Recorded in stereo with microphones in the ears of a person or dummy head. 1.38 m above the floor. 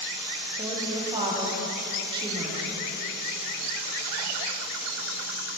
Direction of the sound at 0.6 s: 25° right (ahead or behind).